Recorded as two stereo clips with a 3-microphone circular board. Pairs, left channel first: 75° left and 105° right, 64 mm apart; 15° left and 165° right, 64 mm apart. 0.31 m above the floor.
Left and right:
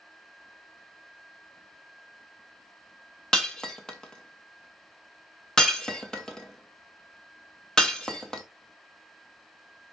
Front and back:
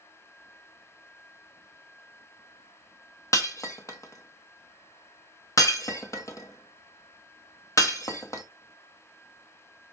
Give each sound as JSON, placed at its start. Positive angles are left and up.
{"t": 3.3, "sound": "breaking glass", "azimuth_deg": -5, "distance_m": 0.6}